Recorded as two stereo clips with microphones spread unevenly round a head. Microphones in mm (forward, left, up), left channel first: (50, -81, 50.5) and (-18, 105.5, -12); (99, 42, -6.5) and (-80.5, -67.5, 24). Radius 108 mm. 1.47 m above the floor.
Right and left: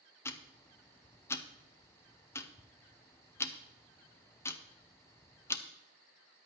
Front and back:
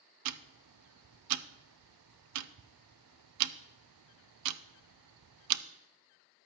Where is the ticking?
150° right, 0.5 m.